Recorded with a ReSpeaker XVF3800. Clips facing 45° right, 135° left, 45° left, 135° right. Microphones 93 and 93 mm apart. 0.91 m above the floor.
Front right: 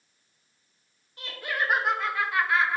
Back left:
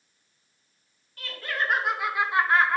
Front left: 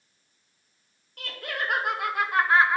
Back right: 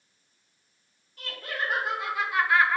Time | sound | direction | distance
1.2 | laughter | 25° left | 0.9 m